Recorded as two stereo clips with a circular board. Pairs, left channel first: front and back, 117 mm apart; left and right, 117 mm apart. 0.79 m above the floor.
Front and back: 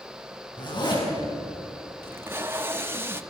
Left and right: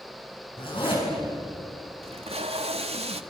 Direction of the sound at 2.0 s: 110° right.